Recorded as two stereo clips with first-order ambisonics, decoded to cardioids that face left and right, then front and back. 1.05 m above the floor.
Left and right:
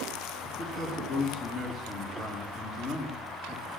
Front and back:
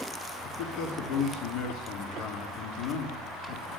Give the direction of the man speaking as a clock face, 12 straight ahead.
11 o'clock.